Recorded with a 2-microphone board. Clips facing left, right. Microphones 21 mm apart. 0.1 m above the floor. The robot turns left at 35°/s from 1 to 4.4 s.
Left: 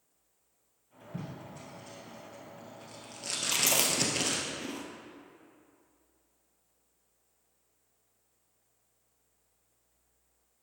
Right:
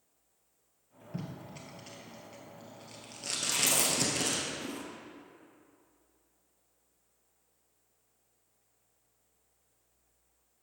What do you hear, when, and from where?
1.1 s tape being pulled: 50° right (ahead or behind), 1.4 m; by 4.5 s 30° left (ahead or behind), 1.4 m
3.5 s chewing: 60° left (ahead or behind), 0.8 m; by 4.8 s 35° left (ahead or behind), 0.8 m